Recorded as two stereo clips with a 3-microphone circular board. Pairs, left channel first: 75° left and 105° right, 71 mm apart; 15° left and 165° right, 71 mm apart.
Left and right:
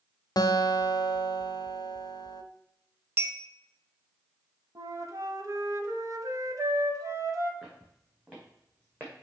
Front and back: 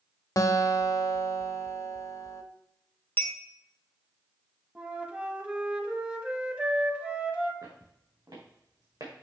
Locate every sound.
0.4 s a guitar: 50° left, 0.6 m
3.2 s a clink: 45° right, 0.7 m
4.8 s a flute: 100° right, 0.9 m
7.6 s footsteps: straight behind, 3.5 m; by 9.1 s 165° right, 2.5 m